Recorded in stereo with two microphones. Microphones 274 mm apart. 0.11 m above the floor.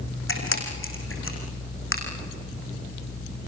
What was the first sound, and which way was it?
A camera shutter, 55° left (ahead or behind).